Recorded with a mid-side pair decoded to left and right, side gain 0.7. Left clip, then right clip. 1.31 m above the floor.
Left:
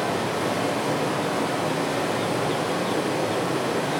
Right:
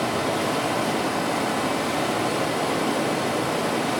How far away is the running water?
About 2 m.